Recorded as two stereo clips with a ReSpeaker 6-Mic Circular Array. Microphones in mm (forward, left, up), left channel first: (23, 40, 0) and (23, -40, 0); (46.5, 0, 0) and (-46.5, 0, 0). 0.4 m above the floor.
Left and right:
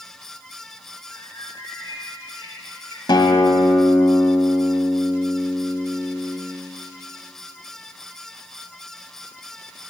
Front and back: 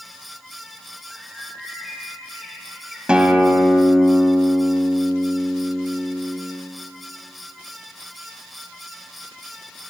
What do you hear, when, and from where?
1.1 s a bird: 90° left, 2.5 m
3.1 s a guitar: 100° left, 1.2 m